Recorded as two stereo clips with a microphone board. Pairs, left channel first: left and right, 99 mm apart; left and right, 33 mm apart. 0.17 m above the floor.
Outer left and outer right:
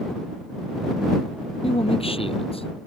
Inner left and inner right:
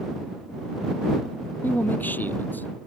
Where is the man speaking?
75° left (ahead or behind).